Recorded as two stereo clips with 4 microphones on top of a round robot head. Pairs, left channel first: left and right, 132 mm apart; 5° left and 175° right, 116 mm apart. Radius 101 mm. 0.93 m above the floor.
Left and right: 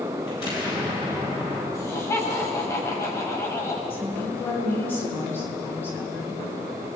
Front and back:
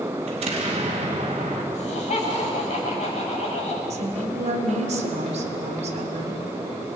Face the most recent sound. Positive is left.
turn(degrees=165)